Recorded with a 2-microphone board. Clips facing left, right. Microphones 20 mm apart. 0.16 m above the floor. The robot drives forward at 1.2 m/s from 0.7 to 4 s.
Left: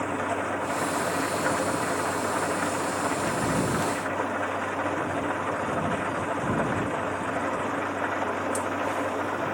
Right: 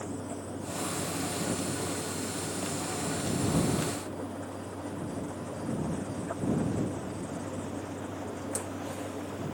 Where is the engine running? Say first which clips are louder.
Left 10 dB; 70° left (ahead or behind).